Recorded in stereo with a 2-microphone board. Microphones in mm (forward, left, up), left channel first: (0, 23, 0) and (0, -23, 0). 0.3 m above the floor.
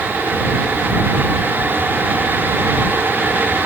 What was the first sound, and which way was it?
Only background noise.